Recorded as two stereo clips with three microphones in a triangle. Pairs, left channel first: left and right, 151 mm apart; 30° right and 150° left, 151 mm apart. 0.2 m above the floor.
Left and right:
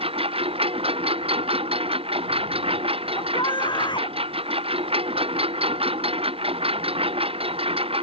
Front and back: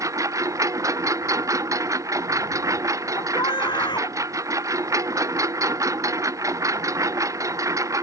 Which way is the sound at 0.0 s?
140° right.